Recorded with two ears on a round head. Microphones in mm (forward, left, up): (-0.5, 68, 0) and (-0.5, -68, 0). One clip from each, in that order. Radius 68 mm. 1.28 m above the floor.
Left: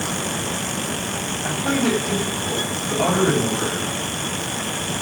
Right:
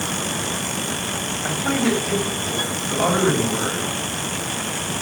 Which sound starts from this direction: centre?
A man speaking, at 1.4 s.